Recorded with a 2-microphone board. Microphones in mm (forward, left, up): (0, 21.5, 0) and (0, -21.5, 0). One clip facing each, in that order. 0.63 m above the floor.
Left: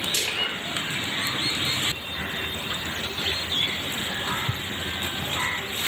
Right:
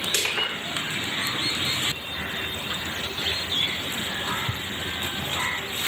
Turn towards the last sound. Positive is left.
turn(degrees=-75)  # may be behind; listen again after turning